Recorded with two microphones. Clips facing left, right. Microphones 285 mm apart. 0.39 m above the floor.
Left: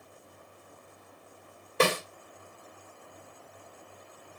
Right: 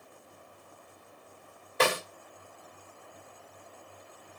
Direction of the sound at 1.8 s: 35° left (ahead or behind).